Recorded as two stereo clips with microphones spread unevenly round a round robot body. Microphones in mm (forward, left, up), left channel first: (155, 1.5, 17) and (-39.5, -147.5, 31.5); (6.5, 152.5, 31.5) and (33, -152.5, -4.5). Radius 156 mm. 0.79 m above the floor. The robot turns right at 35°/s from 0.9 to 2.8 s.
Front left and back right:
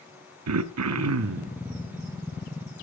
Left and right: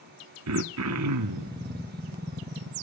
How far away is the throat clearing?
About 1.0 m.